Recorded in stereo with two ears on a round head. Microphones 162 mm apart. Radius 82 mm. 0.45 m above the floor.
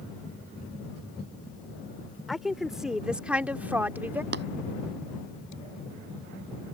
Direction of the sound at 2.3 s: Centre (ahead or behind).